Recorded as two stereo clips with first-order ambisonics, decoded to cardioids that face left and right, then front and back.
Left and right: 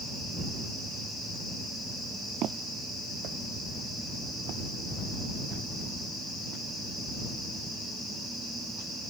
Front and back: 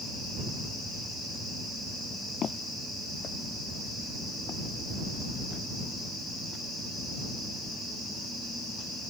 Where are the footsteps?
55° right; by 6.7 s 60° right.